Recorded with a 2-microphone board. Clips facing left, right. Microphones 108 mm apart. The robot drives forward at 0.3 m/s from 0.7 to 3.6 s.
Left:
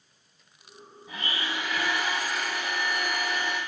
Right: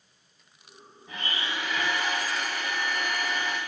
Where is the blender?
5° left (ahead or behind), 0.7 m; by 3.6 s 10° left (ahead or behind), 0.6 m.